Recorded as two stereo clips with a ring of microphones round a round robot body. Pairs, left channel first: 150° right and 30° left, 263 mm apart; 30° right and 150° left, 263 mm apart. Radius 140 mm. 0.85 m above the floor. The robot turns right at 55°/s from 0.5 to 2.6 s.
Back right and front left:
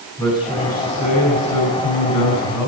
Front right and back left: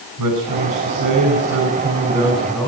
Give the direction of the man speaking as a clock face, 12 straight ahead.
7 o'clock.